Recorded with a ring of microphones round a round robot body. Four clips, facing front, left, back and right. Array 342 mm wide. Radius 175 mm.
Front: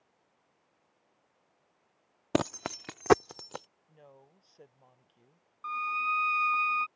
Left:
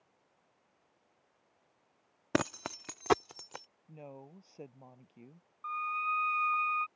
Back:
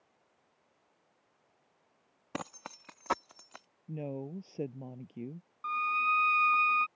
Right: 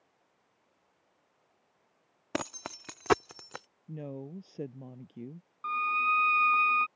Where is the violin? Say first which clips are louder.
Right 5 dB, back 1 dB; 95° right.